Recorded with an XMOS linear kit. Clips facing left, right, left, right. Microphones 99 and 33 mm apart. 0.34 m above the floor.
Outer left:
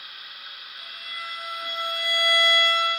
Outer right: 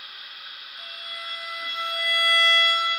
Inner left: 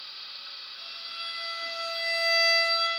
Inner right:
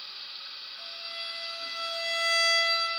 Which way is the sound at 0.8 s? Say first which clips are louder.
Outer left 1 dB, even; centre (ahead or behind).